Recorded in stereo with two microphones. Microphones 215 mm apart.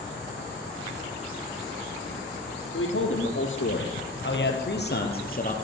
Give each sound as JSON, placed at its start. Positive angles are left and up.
{"t": 2.7, "sound": "a man speaking", "side_deg": 70, "distance_m": 4.0}